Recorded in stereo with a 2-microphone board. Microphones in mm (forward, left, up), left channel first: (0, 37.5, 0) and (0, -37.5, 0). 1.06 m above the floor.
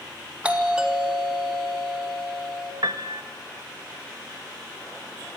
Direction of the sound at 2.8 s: 55° right (ahead or behind).